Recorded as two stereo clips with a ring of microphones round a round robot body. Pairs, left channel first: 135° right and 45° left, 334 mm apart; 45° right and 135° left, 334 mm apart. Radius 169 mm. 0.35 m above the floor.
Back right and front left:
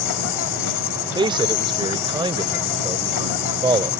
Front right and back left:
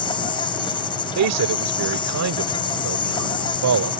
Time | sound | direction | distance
0.0 | an insect | 120° right | ?
1.1 | a man speaking | 120° left | ?